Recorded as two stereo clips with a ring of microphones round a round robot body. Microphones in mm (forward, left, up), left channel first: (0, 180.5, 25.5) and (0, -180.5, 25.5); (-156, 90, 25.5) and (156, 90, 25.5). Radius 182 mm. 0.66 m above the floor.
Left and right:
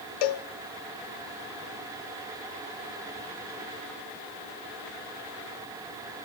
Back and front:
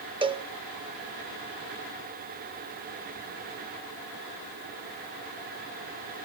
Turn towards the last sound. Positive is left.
turn(degrees=75)